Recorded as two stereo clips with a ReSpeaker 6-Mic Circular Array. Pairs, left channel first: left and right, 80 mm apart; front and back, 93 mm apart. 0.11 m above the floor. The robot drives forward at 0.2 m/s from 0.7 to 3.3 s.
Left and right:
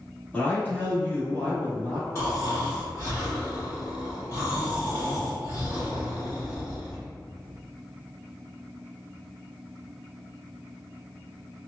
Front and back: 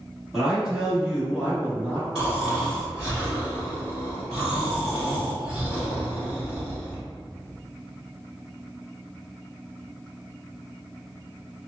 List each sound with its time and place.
0.3 s a man speaking: 105° left, 1.2 m; by 2.0 s 130° left, 1.3 m
2.1 s snoring: 105° left, 1.9 m; by 7.0 s 115° left, 1.9 m